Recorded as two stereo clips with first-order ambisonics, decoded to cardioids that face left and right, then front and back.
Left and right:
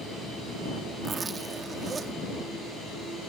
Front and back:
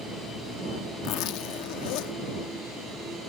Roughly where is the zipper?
Ahead.